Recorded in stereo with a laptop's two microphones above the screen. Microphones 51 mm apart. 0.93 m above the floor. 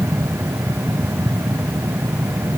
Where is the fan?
65° right (ahead or behind).